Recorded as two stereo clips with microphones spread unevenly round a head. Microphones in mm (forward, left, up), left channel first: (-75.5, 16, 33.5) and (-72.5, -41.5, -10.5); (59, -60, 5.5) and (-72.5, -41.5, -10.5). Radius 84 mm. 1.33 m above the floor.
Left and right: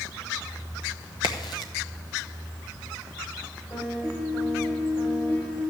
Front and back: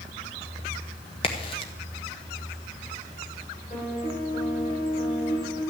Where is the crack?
55° left, 0.9 m.